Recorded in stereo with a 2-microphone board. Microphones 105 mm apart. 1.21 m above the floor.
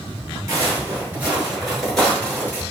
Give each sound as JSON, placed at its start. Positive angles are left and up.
{"t": 0.5, "sound": "footsteps", "side_deg": -30, "distance_m": 1.4}